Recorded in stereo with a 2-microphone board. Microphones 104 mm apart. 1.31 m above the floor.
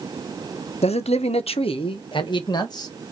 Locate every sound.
0.8 s a man speaking: 80° left, 0.8 m; by 2.9 s 40° left (ahead or behind), 1.5 m